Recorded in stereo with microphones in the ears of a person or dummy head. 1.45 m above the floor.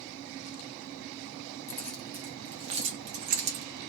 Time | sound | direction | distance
1.7 | keys jangling | 15° left (ahead or behind) | 0.6 m